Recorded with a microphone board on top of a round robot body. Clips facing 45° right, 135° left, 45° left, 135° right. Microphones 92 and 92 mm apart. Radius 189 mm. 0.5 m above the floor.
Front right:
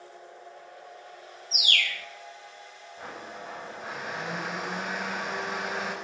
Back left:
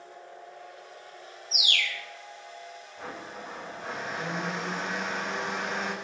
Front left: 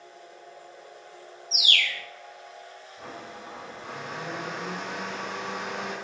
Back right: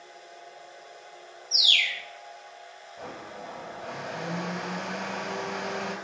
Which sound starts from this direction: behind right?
A blender, at 3.0 s.